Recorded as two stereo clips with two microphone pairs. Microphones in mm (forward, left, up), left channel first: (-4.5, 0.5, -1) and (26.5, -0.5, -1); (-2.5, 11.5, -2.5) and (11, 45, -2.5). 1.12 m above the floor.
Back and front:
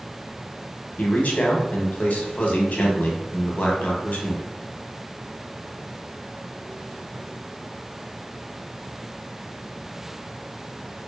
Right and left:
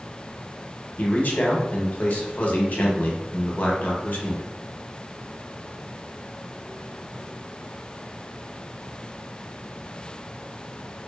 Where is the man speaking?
155° right, 0.7 m.